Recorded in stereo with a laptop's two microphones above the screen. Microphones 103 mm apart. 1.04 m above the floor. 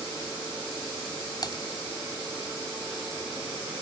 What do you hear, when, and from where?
1.4 s typing on a keyboard: 45° left (ahead or behind)